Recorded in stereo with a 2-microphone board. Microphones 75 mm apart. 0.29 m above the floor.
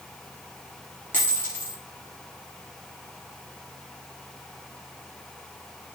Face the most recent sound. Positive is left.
turn(degrees=30)  # may be behind; listen again after turning